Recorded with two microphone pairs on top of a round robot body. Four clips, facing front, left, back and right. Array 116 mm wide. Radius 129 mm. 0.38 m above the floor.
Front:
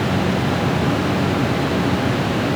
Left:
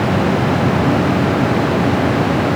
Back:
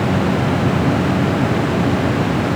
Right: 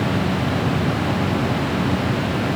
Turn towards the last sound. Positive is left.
No sound to turn to.